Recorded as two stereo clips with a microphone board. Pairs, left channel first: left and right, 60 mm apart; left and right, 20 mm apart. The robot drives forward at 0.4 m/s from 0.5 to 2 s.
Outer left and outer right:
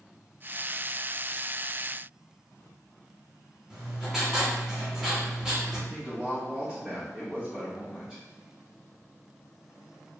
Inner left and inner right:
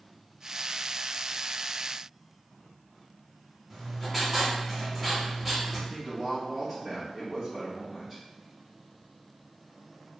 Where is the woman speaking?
5° right (ahead or behind), 1.0 m.